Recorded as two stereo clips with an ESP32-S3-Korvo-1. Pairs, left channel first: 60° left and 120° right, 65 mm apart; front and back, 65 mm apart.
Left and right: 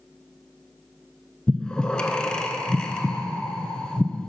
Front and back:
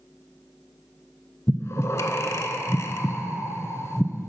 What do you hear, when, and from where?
1.5 s breathing: 10° right, 0.5 m